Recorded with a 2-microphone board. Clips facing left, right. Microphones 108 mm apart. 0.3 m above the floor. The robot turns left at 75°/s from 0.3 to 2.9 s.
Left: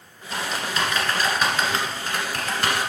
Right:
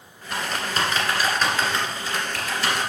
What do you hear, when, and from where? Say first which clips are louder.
0.3 s typing on a keyboard: right 1 dB; 75° right (ahead or behind), 1.6 m; by 2.9 s 60° left (ahead or behind), 1.6 m